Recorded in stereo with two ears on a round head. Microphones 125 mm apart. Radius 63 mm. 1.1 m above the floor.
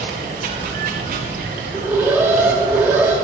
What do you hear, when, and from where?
0.0 s running water: 60° right (ahead or behind), 1.4 m
1.7 s an alarm: 15° right (ahead or behind), 1.3 m